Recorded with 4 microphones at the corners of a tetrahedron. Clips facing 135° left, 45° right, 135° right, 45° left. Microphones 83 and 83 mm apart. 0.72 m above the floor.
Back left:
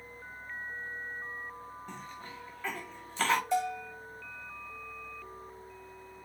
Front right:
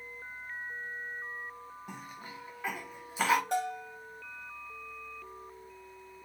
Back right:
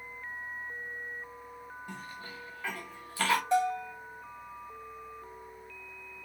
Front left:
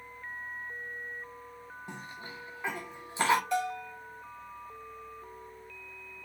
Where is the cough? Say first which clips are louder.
Back left 1 dB, front left 2 dB; 20° left, 0.6 m.